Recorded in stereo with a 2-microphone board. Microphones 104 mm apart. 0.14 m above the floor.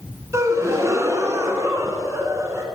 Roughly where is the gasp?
Right.